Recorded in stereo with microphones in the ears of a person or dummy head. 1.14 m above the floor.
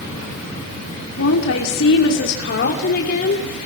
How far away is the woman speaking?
About 2.5 m.